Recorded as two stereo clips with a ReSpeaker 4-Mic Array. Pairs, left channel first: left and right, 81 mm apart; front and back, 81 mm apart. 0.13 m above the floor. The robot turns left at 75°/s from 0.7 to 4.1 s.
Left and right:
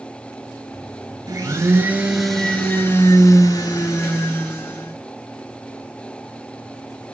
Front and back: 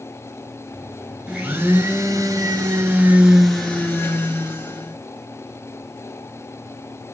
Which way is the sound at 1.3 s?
105° right.